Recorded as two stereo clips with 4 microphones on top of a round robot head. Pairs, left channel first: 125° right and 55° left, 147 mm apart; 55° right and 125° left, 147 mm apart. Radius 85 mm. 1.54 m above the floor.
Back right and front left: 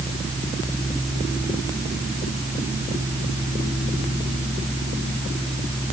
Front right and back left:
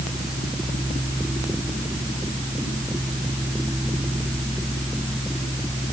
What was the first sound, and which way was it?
Only background noise.